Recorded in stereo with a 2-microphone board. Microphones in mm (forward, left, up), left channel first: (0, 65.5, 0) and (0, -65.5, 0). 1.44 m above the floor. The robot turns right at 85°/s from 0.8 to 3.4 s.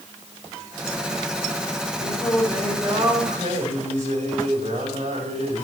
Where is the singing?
125° left, 4.5 m; by 5.7 s 115° right, 4.5 m.